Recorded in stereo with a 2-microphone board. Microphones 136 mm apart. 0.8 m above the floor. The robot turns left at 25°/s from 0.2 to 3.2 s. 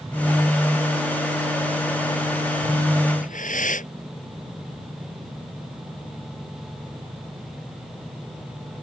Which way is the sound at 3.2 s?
75° left (ahead or behind).